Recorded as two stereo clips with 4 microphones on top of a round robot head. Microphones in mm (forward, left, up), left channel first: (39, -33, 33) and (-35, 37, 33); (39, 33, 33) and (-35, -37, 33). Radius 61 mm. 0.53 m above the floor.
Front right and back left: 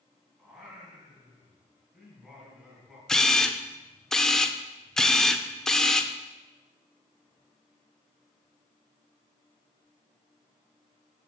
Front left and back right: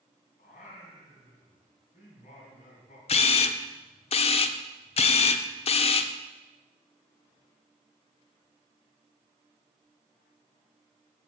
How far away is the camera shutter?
About 0.6 m.